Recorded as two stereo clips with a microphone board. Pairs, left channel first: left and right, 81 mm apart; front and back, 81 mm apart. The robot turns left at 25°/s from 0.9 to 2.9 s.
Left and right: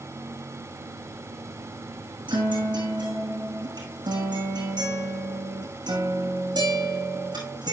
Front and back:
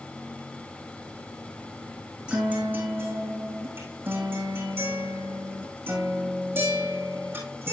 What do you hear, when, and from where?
2.3 s a guitar: 100° right, 5.5 m; by 7.7 s 115° right, 5.5 m